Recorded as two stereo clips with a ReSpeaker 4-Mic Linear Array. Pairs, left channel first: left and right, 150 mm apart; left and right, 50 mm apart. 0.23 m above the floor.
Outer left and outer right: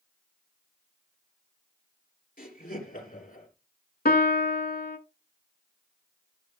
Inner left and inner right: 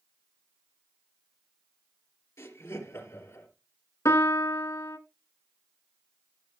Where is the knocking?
I don't hear knocking.